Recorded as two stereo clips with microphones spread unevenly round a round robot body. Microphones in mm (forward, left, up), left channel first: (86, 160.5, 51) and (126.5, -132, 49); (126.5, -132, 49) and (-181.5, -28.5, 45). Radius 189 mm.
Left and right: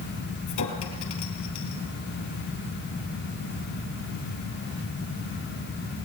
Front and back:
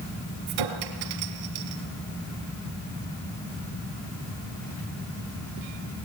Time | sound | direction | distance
0.5 | a clink | 150° left | 2.5 m